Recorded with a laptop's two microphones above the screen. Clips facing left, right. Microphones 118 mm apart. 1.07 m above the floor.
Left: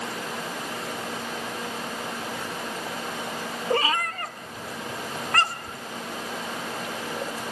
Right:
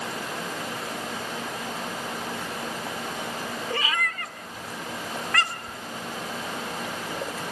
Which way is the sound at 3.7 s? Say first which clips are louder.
Left 7 dB; 40° left (ahead or behind).